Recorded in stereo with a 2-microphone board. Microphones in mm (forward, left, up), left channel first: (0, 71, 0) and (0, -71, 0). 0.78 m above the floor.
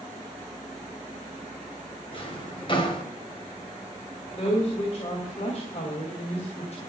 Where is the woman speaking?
50° left (ahead or behind), 3 m.